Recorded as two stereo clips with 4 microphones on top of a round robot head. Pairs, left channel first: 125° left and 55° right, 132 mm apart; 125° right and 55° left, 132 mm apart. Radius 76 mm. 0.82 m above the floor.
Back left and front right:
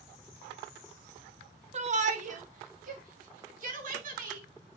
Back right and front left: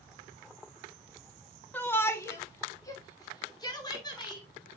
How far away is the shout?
About 1.1 m.